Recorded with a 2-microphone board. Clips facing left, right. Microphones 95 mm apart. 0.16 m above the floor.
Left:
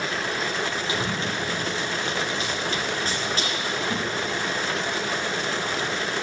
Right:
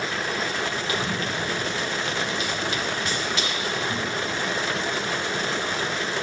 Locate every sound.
0.9 s running footsteps: 25° left (ahead or behind), 6 m; by 4.4 s 40° left (ahead or behind), 7 m